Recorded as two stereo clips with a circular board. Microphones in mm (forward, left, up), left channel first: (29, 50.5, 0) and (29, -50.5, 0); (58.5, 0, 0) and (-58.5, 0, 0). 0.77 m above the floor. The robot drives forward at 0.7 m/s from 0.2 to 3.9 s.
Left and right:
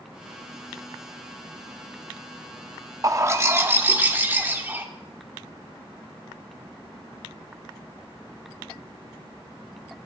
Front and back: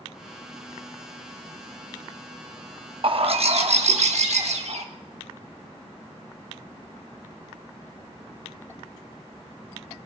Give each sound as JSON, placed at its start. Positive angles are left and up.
{"t": 3.0, "sound": "a bird", "azimuth_deg": -140, "distance_m": 0.8}